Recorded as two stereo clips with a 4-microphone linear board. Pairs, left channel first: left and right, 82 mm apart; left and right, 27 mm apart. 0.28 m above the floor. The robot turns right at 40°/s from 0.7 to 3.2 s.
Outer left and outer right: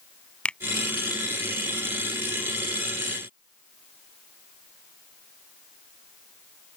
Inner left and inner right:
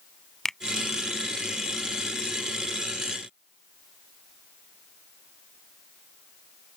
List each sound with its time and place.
0.5 s a finger snap: 10° left (ahead or behind)